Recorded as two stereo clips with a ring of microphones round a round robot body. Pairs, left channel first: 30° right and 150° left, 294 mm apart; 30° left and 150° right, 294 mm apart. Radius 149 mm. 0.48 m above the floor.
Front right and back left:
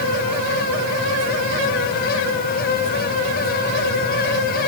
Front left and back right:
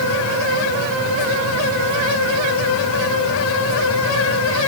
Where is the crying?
No crying in this recording.